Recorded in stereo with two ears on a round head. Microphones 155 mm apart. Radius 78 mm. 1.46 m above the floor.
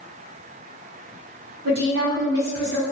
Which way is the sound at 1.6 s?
60° right (ahead or behind).